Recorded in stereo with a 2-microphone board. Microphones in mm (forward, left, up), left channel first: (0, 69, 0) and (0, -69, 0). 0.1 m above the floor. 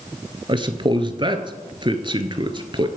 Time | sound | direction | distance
0.5 | a man speaking | 35° right (ahead or behind) | 1.3 m